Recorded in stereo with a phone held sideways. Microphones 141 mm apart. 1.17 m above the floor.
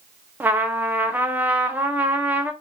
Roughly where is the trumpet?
Centre.